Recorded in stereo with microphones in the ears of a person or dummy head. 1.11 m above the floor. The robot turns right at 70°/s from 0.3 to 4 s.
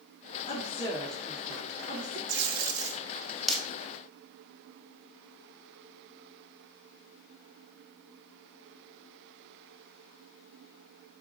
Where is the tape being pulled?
65° right (ahead or behind), 1.4 m; by 3.6 s 10° left (ahead or behind), 1.4 m.